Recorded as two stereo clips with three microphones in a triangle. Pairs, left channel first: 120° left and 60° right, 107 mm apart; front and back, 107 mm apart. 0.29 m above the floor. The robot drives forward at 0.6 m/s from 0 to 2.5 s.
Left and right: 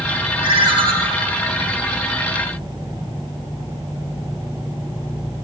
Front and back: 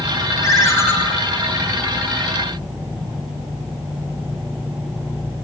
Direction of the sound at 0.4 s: 50° right.